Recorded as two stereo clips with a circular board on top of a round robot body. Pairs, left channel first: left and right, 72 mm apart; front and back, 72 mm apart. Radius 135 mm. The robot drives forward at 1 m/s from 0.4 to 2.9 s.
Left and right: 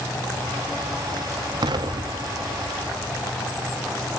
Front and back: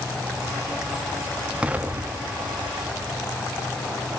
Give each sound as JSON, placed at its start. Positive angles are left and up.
{"t": 1.6, "sound": "an explosion", "azimuth_deg": -105, "distance_m": 1.3}